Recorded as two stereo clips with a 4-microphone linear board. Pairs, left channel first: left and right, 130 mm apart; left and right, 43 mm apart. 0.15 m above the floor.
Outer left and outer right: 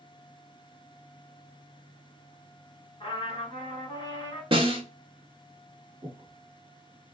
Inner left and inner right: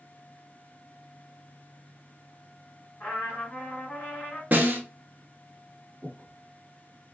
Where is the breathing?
30° right (ahead or behind), 1.4 m.